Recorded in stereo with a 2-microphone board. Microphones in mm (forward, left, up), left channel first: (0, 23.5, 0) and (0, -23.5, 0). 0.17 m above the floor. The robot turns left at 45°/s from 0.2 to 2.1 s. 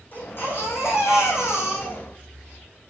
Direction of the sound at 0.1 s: 135° left.